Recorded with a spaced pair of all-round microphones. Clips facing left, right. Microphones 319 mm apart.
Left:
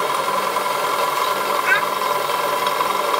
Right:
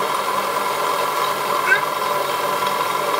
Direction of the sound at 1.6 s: 50° right (ahead or behind).